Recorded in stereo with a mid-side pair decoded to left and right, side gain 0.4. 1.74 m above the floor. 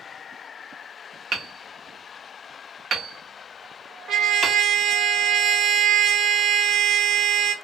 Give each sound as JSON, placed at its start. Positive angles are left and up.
{"t": 1.3, "sound": "hammering", "azimuth_deg": -60, "distance_m": 0.8}
{"t": 4.1, "sound": "a trumpet", "azimuth_deg": -70, "distance_m": 0.6}